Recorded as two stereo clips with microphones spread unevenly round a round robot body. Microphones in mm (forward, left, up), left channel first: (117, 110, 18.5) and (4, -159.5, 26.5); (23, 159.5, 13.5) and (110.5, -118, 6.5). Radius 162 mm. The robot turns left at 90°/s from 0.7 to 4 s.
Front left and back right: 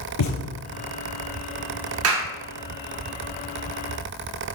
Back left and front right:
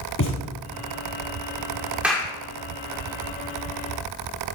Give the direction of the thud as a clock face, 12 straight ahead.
10 o'clock.